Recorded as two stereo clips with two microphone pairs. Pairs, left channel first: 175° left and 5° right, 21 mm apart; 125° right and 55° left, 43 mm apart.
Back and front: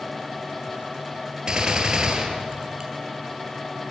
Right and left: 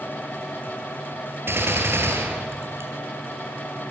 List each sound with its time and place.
1.5 s a gunshot: 45° left, 3 m